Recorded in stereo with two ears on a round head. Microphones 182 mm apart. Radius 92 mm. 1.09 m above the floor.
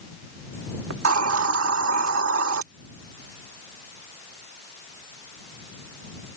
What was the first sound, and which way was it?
A hiss, 70° right (ahead or behind).